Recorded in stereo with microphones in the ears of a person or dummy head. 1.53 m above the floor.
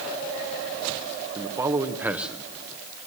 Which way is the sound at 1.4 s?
20° right (ahead or behind).